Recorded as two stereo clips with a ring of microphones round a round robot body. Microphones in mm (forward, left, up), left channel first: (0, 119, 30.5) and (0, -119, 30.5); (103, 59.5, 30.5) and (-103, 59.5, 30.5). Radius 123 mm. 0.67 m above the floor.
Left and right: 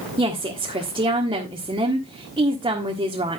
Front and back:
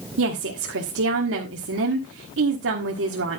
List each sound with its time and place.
0.2 s a woman speaking: 160° right, 1.5 m